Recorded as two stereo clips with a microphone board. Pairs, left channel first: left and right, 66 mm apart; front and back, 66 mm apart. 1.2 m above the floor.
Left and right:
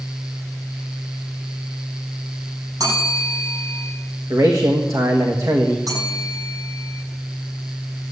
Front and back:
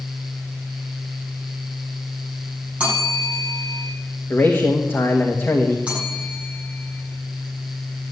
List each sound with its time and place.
2.8 s a bell: 105° right, 9 m
4.3 s a man speaking: 55° right, 1.5 m
5.9 s a bell: 110° right, 10 m